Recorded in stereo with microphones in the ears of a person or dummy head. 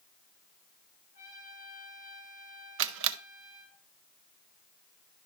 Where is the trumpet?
20° left (ahead or behind), 9 m.